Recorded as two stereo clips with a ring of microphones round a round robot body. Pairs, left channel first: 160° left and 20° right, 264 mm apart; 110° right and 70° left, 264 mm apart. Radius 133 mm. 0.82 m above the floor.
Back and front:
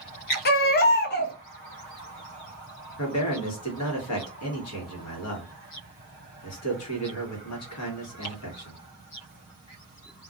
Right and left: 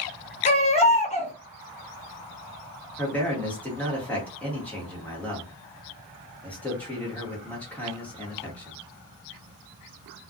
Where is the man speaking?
165° left, 1.2 m.